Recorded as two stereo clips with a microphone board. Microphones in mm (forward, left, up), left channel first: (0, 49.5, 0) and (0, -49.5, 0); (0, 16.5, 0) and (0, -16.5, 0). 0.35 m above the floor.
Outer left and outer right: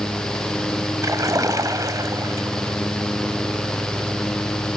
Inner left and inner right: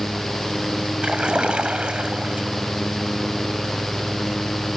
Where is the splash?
35° right (ahead or behind), 1.6 m.